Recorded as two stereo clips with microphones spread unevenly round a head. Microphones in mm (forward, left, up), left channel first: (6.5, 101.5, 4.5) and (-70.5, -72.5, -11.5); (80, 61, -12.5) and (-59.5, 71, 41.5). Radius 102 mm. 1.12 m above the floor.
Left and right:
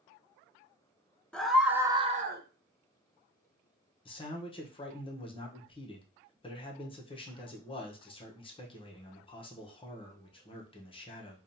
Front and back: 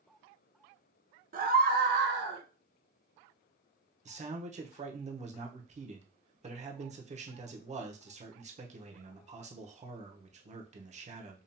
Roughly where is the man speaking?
Behind left.